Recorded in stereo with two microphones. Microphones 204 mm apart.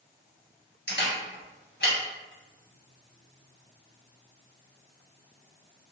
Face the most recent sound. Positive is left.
turn(degrees=55)  # may be behind; listen again after turning